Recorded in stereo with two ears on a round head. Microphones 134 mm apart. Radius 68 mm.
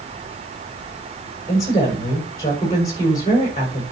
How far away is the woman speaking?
About 5.5 m.